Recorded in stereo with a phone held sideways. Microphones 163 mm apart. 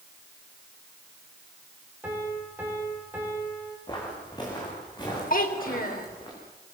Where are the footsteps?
25° left (ahead or behind), 8.5 m.